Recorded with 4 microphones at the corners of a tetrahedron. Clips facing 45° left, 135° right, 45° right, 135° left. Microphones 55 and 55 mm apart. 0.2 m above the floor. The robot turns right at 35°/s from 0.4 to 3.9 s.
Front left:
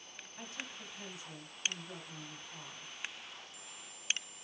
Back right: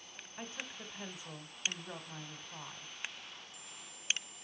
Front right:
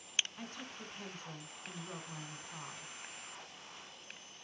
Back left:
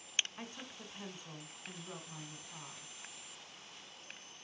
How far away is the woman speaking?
About 1.4 m.